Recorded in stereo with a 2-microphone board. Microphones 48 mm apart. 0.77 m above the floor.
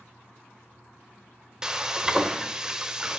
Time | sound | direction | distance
1.6 | frying | 15° right (ahead or behind) | 0.6 m